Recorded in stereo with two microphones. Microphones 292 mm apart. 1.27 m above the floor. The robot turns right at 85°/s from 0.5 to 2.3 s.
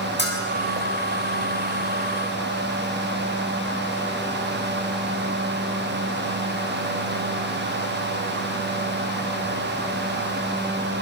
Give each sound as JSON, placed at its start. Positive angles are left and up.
{"t": 0.2, "sound": "a bell", "side_deg": 35, "distance_m": 6.5}